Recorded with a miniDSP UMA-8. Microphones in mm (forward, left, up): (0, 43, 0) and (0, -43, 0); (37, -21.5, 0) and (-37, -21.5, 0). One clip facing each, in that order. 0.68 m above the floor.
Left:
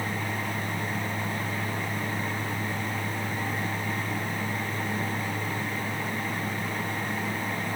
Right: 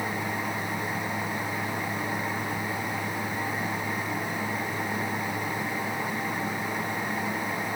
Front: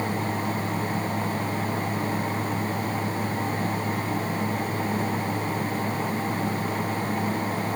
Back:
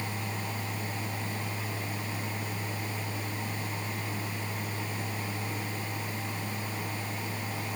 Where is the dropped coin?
No dropped coin in this recording.